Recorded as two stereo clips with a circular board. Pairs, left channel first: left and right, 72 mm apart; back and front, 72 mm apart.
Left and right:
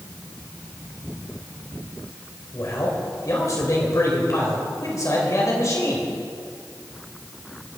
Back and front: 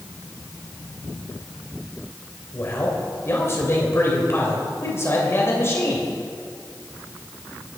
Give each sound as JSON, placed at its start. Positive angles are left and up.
{"t": 2.5, "sound": "a man speaking", "azimuth_deg": 130, "distance_m": 3.0}